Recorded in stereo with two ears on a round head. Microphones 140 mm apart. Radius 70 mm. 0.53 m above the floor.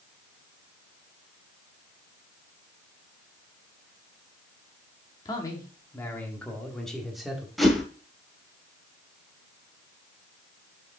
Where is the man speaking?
25° left (ahead or behind), 1.4 m; by 7.5 s 5° right (ahead or behind), 1.7 m.